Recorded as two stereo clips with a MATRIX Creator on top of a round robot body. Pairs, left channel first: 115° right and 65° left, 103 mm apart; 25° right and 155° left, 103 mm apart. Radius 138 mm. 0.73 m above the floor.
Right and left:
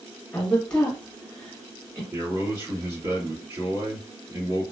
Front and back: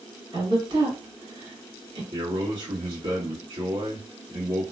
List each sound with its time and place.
0.3 s a woman speaking: 170° left, 1.5 m
2.1 s a man speaking: 120° left, 1.8 m